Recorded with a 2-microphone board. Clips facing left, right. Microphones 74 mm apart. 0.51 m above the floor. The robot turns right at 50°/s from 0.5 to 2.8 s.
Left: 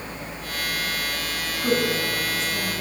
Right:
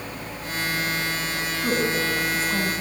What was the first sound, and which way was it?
A woman speaking, centre (ahead or behind).